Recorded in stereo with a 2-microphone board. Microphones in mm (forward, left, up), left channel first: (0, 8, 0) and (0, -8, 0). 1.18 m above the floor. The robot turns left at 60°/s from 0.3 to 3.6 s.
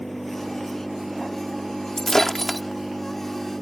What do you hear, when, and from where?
0.0 s an engine running: 15° left; by 3.6 s 175° left
2.0 s breaking glass: 40° left; by 2.6 s straight ahead